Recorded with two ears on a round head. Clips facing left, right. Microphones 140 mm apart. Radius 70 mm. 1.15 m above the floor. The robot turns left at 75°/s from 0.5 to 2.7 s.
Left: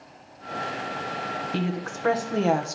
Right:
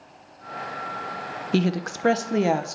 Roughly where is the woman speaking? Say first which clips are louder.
Right 8 dB; right.